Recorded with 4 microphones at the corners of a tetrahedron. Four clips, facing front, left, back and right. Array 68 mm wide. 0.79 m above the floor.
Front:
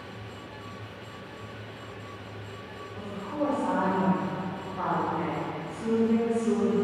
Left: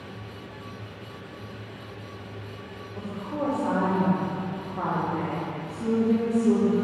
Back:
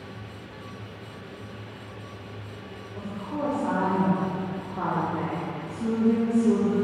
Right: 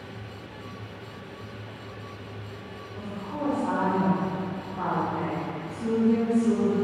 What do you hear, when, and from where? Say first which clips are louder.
3.0 s a woman speaking: left 3 dB, even; 145° left, 1.8 m